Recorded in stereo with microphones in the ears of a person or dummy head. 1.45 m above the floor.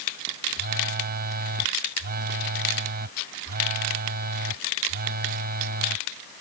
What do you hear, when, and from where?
0.5 s a phone buzzing: 50° right (ahead or behind)